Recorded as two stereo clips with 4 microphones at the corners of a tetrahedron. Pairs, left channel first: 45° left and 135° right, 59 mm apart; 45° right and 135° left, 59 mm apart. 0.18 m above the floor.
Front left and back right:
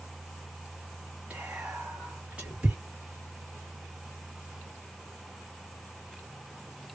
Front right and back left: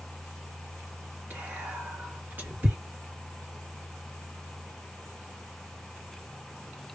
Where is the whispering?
170° left, 1.6 m.